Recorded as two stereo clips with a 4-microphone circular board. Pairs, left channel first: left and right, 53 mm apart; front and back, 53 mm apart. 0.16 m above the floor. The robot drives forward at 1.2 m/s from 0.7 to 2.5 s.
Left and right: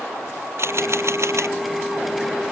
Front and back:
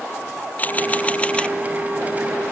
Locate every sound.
0.6 s a camera shutter: 60° right; by 1.6 s 70° right